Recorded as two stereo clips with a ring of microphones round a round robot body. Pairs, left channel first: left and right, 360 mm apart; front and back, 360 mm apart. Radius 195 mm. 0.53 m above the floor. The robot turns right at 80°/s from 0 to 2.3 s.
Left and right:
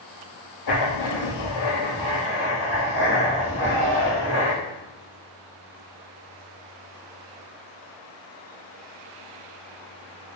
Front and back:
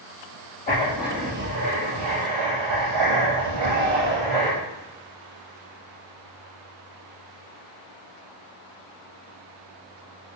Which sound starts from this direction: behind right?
A shout, at 3.5 s.